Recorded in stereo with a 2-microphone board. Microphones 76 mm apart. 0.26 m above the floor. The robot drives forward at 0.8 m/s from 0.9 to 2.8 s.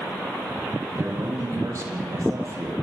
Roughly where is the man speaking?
Right.